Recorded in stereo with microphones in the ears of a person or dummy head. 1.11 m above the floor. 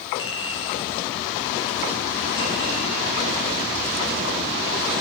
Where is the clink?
25° left (ahead or behind), 3 m.